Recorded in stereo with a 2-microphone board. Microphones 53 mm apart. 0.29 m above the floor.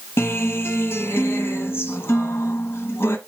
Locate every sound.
0.2 s a guitar: 50° left (ahead or behind), 1.1 m